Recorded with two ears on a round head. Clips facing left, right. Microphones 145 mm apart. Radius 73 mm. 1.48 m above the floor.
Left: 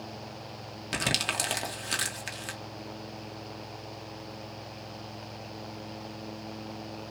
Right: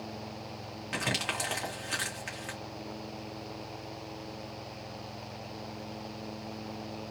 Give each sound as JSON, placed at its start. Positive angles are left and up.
{"t": 0.9, "sound": "crumpling", "side_deg": 40, "distance_m": 1.2}